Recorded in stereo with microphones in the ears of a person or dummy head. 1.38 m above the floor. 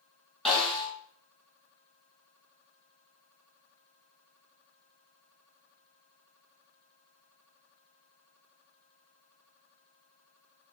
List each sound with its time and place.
0.5 s a snare drum: 5° left (ahead or behind), 1.8 m